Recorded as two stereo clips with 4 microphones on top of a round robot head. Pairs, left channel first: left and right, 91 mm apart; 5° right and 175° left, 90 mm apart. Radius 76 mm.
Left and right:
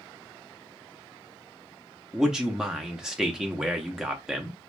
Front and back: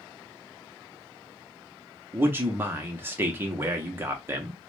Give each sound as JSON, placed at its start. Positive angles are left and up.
{"t": 2.1, "sound": "a man speaking", "azimuth_deg": -165, "distance_m": 0.7}